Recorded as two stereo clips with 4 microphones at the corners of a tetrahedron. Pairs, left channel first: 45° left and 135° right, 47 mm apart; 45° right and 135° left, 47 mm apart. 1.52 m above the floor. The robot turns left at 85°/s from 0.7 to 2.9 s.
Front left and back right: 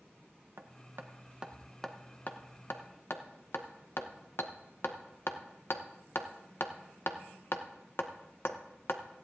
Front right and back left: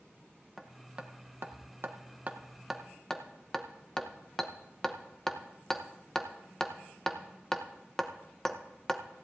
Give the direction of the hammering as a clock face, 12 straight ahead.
5 o'clock.